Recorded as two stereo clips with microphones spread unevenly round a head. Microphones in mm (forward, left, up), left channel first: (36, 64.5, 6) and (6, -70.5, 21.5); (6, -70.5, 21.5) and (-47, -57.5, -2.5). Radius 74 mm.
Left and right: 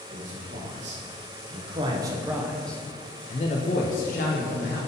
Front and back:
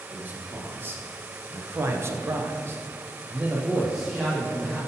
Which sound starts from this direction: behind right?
A man speaking, at 0.1 s.